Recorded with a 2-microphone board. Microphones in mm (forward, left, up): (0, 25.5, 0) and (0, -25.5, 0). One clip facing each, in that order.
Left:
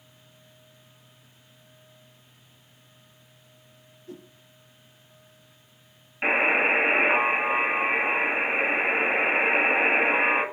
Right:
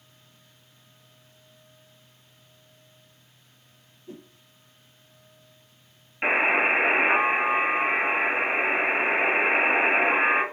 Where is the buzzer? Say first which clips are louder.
Even; 10° right (ahead or behind), 1.0 m.